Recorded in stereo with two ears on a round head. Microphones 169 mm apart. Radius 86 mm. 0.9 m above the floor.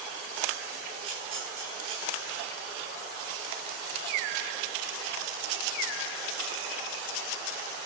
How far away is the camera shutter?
About 6 m.